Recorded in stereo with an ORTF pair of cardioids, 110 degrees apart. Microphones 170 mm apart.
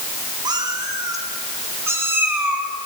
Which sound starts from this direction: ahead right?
A cat meowing, at 0.5 s.